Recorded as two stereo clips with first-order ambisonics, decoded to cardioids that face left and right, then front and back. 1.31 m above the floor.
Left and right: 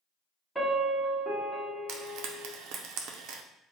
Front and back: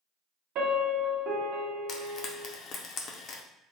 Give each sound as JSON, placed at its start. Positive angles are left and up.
{"t": 0.6, "sound": "a piano", "azimuth_deg": 175, "distance_m": 0.8}
{"t": 1.9, "sound": "frying", "azimuth_deg": -55, "distance_m": 0.5}